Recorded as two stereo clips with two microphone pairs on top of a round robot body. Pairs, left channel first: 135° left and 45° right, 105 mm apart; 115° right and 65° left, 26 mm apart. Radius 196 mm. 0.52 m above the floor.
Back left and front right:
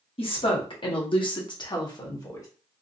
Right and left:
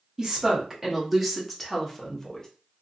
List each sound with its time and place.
0.2 s a woman speaking: 135° left, 2 m; by 2.5 s straight behind, 1.7 m